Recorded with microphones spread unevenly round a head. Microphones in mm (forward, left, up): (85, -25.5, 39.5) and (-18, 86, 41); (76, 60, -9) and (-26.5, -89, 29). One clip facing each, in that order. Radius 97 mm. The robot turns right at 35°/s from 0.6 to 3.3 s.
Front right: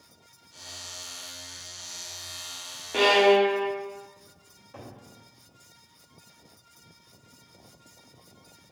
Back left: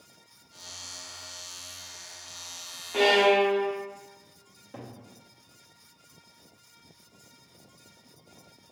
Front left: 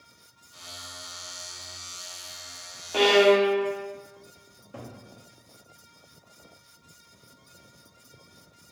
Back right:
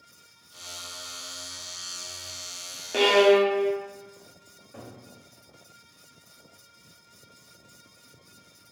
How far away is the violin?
About 0.7 m.